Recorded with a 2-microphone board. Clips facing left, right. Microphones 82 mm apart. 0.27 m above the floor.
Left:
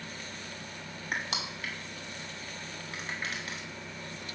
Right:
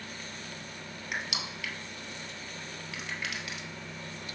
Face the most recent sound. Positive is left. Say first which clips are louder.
# left 2 dB
turn(degrees=35)  # may be behind; listen again after turning